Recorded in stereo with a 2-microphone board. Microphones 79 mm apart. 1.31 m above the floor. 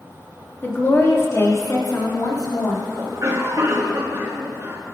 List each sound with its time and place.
0.6 s a woman speaking: 25° left (ahead or behind), 2.5 m; by 2.9 s 55° left (ahead or behind), 3 m
3.0 s a cough: 45° right (ahead or behind), 2 m